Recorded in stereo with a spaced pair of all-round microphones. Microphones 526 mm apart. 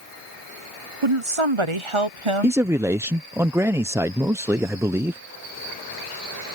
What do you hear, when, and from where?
1.0 s a woman speaking: 65° right (ahead or behind)
2.4 s a man speaking: 5° right (ahead or behind)